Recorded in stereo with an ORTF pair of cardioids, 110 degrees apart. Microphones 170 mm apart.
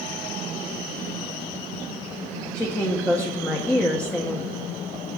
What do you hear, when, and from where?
2.5 s a woman speaking: 10° left, 1.1 m